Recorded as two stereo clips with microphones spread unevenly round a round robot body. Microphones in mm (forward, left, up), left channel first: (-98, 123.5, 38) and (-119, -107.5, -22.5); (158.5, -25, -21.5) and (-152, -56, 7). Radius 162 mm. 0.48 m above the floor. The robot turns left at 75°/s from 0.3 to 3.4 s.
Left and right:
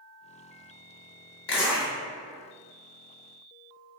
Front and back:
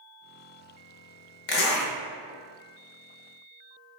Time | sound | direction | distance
1.5 | a zipper | 30° left | 1.0 m